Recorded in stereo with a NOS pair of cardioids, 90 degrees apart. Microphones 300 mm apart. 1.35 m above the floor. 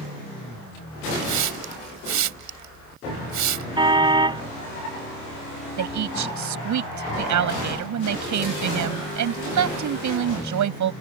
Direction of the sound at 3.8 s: 15° right.